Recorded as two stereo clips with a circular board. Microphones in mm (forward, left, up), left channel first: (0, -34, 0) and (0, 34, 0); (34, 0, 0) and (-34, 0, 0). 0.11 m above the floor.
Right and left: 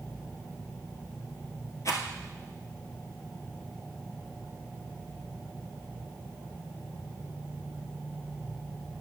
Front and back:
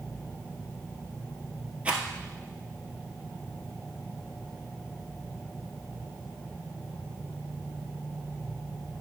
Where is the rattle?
110° right, 1.3 m.